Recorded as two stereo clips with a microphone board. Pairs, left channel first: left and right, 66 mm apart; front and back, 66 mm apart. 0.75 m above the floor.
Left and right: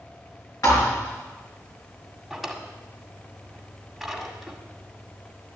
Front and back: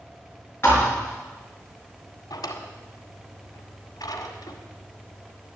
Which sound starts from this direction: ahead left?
A thud, at 0.6 s.